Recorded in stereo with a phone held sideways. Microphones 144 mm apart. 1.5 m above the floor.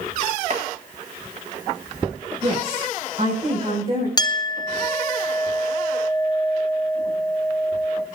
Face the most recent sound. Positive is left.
turn(degrees=25)  # may be behind; listen again after turning